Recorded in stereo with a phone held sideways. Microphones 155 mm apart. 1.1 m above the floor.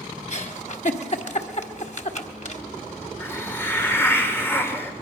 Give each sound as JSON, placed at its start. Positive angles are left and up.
{"t": 0.3, "sound": "a giggle", "side_deg": 50, "distance_m": 1.4}
{"t": 3.2, "sound": "a hiss", "side_deg": 15, "distance_m": 2.5}